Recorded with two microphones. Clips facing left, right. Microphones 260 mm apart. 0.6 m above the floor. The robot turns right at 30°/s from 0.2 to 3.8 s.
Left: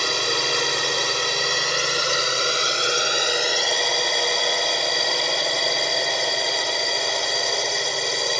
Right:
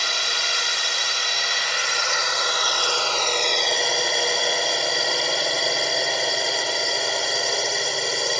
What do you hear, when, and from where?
0.0 s a drone: 75° left; by 8.4 s straight behind